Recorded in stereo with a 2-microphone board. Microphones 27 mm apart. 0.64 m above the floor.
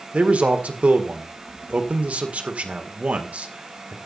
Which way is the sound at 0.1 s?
65° right (ahead or behind).